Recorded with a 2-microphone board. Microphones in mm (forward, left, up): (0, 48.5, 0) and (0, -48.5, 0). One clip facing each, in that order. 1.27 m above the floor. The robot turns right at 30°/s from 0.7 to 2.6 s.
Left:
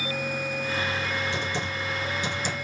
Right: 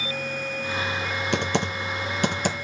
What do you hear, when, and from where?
1.3 s typing on a keyboard: 75° right (ahead or behind), 0.9 m; by 2.5 s 65° right (ahead or behind), 0.9 m